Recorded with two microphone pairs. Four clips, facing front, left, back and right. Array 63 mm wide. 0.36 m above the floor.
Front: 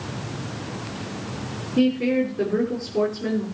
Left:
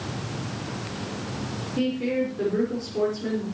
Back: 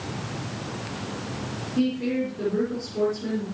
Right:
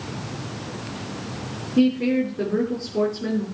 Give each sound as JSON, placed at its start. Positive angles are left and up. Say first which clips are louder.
{"t": 1.8, "sound": "a woman speaking", "louder": "right 6 dB, front 5 dB", "azimuth_deg": -55, "distance_m": 5.0}